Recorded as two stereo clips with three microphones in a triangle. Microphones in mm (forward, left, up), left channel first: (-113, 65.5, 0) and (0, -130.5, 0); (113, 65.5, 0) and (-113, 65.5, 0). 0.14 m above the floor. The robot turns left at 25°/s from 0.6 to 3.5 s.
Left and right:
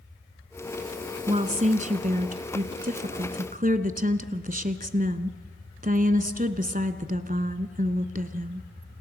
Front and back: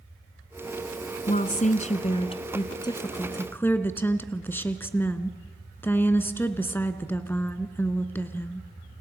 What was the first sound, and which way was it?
A woman speaking, 20° right.